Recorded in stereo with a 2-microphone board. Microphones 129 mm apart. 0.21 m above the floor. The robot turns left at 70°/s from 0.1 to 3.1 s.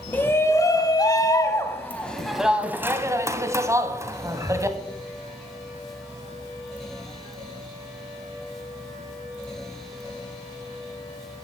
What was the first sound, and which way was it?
A shout, 10° left (ahead or behind).